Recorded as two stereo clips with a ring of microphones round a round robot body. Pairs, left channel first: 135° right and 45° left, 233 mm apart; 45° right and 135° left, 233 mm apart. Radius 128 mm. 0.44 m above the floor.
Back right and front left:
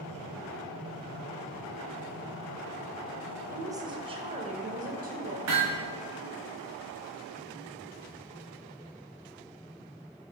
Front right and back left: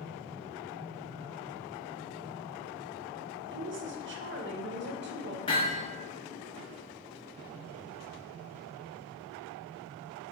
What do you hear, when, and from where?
3.5 s a woman speaking: 125° left, 1.5 m; by 5.4 s 95° left, 3 m
5.5 s hammering: 25° left, 5 m